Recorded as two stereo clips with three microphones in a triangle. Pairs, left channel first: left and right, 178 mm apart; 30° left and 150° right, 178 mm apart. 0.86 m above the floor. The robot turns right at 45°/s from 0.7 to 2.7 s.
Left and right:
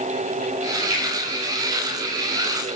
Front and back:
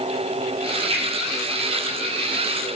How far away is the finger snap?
About 6 m.